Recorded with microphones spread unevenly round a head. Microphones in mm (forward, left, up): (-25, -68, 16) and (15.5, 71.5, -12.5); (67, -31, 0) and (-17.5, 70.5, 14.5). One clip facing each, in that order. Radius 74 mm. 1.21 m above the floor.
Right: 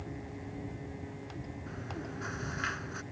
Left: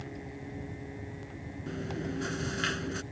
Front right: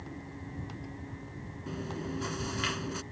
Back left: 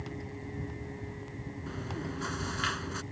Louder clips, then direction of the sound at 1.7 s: Left 9 dB, front right 2 dB; 25° left.